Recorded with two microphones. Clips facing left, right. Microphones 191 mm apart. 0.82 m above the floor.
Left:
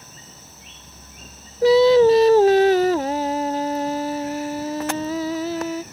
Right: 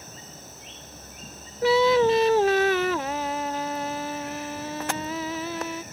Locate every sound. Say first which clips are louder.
1.6 s singing: left 7 dB; 35° left (ahead or behind)